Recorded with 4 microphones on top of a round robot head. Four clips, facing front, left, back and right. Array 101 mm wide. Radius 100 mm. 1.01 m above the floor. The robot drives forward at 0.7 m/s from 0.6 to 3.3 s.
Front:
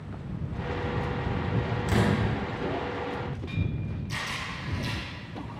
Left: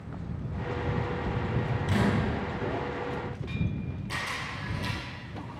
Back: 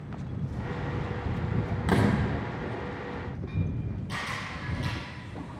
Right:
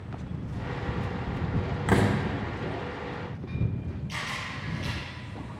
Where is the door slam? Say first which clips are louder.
Right 4 dB, back 1 dB; 120° right, 2.0 m; by 2.1 s 125° right, 2 m.